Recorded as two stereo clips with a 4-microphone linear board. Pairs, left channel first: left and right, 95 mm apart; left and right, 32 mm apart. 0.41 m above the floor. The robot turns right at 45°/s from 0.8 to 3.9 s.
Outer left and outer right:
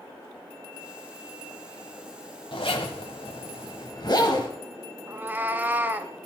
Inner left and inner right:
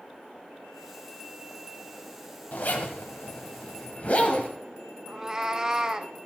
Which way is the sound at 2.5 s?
65° left.